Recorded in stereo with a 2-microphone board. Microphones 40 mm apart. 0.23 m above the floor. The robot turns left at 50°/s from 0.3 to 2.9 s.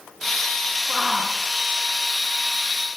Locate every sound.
0.9 s a shout: centre (ahead or behind), 2.5 m; by 1.4 s 25° right (ahead or behind), 2.5 m